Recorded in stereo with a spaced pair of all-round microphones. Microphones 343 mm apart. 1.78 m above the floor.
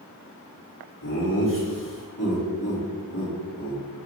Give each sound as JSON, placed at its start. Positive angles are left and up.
{"t": 1.0, "sound": "laughter", "side_deg": 65, "distance_m": 5.5}